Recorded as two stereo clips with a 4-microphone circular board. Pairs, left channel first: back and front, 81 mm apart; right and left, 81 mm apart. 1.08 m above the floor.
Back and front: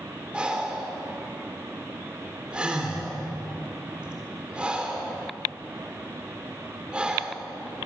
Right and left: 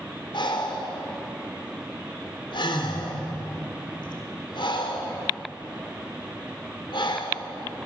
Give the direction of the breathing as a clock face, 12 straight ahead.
3 o'clock.